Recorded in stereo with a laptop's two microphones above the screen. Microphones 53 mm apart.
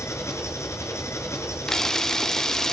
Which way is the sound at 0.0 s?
65° left (ahead or behind).